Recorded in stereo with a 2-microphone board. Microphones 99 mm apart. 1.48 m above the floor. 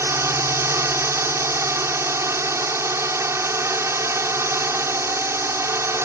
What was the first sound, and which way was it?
A drone, 30° right (ahead or behind).